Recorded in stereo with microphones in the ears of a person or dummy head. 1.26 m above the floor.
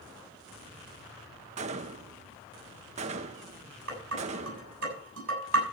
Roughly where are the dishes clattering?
Right.